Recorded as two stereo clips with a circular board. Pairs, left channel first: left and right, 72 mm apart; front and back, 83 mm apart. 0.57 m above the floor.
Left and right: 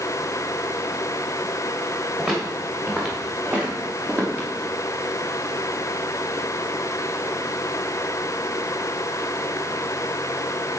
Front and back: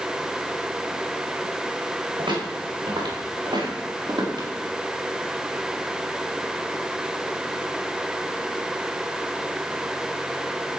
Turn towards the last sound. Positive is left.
turn(degrees=-150)